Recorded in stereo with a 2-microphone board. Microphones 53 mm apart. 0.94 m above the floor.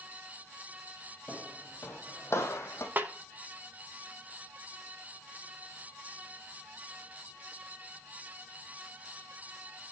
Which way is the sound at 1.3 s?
30° left (ahead or behind).